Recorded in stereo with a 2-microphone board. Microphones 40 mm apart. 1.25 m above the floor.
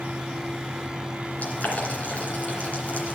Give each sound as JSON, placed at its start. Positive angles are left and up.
{"t": 1.4, "sound": "boiling", "side_deg": 40, "distance_m": 2.5}